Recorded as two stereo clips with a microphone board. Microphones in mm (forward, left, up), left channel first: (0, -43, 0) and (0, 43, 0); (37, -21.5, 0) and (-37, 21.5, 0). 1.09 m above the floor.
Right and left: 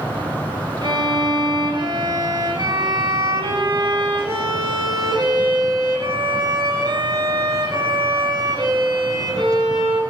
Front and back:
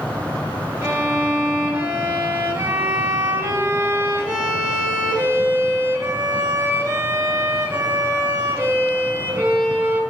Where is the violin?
90° left, 2.5 m.